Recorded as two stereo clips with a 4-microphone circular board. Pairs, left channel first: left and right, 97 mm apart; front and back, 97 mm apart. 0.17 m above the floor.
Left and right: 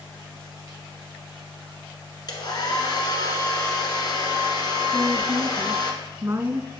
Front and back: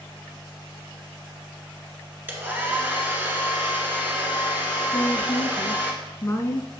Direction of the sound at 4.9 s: 40° right.